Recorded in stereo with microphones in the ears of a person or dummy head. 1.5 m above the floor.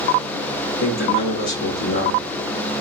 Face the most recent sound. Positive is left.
turn(degrees=60)  # may be behind; listen again after turning